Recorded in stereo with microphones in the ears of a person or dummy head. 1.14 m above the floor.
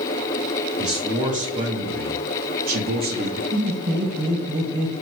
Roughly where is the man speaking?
Right.